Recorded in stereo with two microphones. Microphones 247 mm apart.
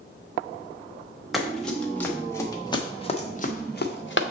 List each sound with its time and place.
1.3 s running footsteps: centre (ahead or behind), 1.8 m; by 4.2 s 55° left (ahead or behind), 1.0 m